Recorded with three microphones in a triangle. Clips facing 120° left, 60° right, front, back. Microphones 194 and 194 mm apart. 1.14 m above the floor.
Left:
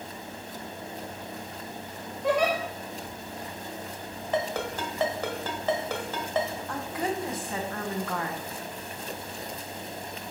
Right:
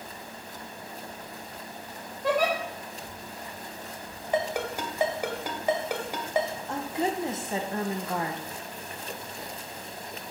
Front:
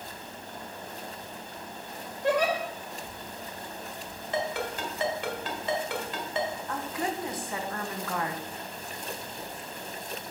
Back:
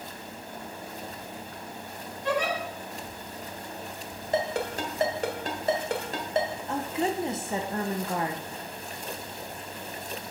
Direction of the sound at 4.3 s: 135° right.